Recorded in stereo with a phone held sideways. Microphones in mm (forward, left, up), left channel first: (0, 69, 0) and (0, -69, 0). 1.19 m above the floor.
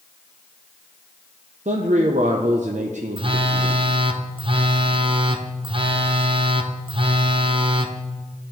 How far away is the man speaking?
About 0.6 m.